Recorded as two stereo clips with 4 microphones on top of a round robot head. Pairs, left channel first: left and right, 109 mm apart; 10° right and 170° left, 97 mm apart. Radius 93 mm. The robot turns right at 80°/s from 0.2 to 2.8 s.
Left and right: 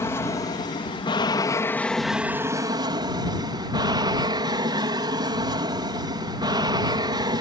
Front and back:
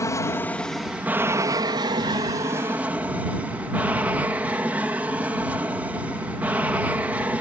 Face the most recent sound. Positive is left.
turn(degrees=-120)